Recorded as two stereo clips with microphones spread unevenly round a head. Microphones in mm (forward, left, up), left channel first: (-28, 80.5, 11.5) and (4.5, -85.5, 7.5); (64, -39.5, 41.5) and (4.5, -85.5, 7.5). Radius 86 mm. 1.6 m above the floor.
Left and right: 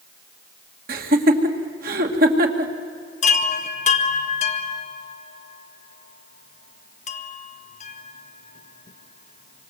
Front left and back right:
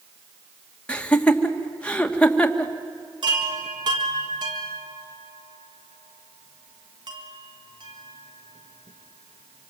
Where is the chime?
150° left, 1.5 m.